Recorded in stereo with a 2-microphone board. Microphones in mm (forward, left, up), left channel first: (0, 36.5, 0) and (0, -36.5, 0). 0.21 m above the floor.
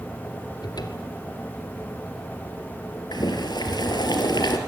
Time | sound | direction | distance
0.6 | a cupboard door | 70° left (ahead or behind) | 1.6 m
3.1 | boiling | 75° left (ahead or behind) | 2.5 m